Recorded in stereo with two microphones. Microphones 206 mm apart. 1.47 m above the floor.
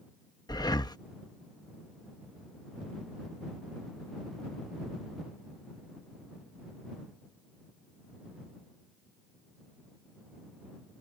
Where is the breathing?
20° left (ahead or behind).